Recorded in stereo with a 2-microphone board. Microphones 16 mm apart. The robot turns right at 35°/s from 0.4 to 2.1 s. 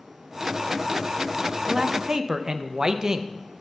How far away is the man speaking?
About 0.5 m.